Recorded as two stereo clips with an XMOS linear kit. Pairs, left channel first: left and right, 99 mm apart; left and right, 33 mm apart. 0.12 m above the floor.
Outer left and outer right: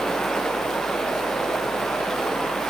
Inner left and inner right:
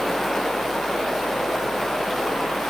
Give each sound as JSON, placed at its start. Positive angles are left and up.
{"t": 0.0, "sound": "running water", "side_deg": 5, "distance_m": 2.5}